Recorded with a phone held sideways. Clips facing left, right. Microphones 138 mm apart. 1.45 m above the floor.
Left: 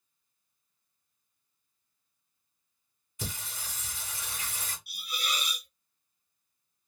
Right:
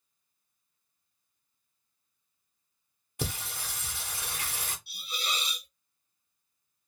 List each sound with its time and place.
3.2 s singing: 65° right (ahead or behind), 0.9 m
4.9 s a hiss: 25° right (ahead or behind), 0.5 m